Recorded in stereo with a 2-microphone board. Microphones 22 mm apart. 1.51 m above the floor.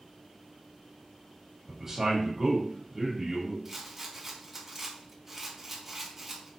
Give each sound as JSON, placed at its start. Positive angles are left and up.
{"t": 1.7, "sound": "a man speaking", "side_deg": -20, "distance_m": 1.3}
{"t": 3.6, "sound": "a rattle", "side_deg": -15, "distance_m": 0.7}